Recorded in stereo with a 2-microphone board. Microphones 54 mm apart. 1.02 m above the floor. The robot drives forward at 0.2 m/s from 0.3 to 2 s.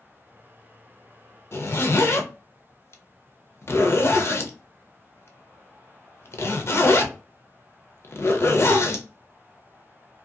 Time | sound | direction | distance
1.5 | a zipper | 45° left (ahead or behind) | 0.5 m